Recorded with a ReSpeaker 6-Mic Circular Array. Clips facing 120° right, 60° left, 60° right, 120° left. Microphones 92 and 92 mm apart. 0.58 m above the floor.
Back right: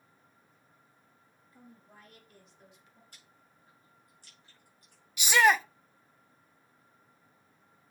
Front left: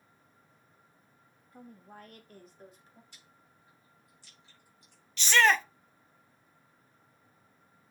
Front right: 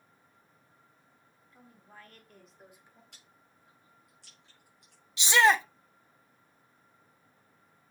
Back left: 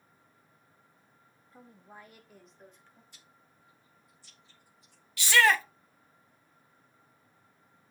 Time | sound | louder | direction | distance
1.5 | a woman speaking | front left 6 dB, back left 3 dB | 75° left | 1.6 m
3.1 | chewing | even, even | 75° right | 5.5 m
5.2 | a shout | back right 1 dB, front right 1 dB | 65° right | 0.6 m